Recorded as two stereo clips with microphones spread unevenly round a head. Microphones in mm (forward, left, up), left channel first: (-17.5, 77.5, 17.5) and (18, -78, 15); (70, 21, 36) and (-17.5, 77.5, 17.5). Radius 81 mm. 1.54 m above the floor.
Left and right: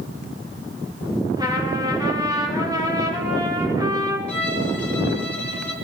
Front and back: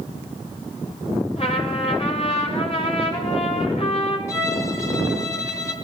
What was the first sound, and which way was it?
A trumpet, 10° right.